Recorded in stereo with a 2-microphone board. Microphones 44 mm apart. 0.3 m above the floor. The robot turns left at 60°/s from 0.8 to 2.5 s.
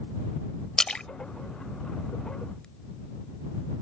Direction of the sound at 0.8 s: 15° left (ahead or behind).